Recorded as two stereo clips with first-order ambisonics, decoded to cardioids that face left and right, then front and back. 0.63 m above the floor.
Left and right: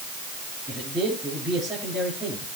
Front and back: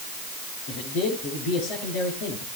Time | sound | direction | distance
0.7 | a man speaking | 10° right | 7.5 m